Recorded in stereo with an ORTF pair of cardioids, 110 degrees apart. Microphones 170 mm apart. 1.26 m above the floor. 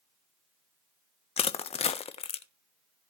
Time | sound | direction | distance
1.4 | crushing | 40° left | 1.1 m